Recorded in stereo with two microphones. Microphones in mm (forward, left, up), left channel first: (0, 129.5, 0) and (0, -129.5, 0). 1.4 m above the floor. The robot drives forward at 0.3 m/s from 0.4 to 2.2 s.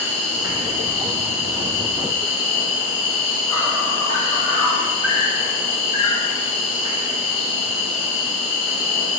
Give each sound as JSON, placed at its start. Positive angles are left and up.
{"t": 0.0, "sound": "an insect", "side_deg": 30, "distance_m": 1.6}